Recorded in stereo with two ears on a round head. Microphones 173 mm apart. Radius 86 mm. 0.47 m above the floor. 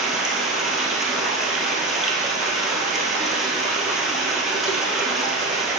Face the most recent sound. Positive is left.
turn(degrees=0)  # may be behind; listen again after turning